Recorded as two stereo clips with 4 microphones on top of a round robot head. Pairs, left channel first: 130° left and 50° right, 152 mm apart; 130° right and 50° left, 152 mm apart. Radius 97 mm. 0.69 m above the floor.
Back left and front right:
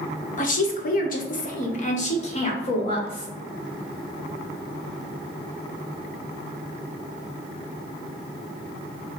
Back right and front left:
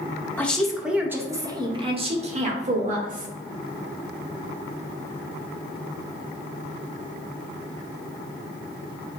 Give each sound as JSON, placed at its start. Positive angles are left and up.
{"t": 0.4, "sound": "a woman speaking", "azimuth_deg": 150, "distance_m": 1.1}